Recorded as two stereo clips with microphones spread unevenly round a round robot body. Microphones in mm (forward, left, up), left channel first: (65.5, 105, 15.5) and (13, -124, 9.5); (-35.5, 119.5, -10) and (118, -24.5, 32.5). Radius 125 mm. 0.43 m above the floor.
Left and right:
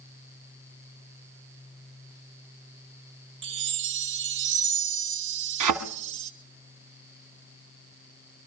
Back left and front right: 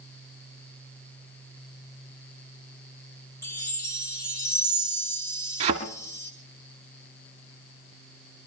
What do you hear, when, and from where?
3.4 s a chime: 145° right, 0.7 m
5.6 s a thud: 110° right, 1.3 m